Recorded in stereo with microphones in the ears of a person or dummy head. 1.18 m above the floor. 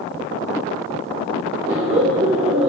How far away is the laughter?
About 2.5 m.